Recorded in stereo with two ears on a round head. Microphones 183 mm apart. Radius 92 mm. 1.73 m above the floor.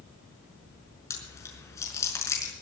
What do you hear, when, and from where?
1.1 s chewing: 15° left (ahead or behind), 5.5 m